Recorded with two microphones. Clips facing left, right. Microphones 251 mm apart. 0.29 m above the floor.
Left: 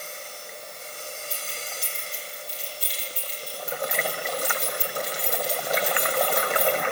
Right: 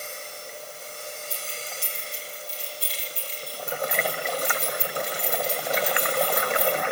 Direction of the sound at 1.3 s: 60° right (ahead or behind).